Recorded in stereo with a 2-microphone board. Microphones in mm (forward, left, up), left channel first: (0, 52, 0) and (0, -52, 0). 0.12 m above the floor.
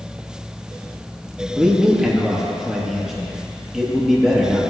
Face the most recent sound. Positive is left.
turn(degrees=-5)  # may be behind; listen again after turning